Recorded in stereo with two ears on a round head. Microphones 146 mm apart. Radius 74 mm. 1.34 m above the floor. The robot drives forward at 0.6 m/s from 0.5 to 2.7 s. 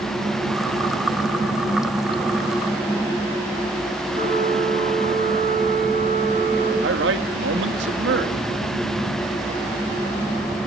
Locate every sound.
4.1 s a flute: 50° right (ahead or behind), 9 m
6.8 s a man speaking: 80° right, 3 m